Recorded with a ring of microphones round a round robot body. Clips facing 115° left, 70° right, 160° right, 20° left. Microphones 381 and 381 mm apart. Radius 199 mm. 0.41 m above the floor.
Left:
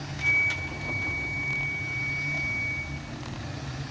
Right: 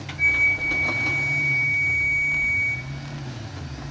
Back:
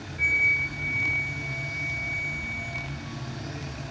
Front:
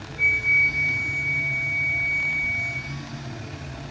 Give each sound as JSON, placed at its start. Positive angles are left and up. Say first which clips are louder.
{"t": 0.2, "sound": "a flute", "louder": "right 3 dB, front 1 dB", "azimuth_deg": -55, "distance_m": 6.5}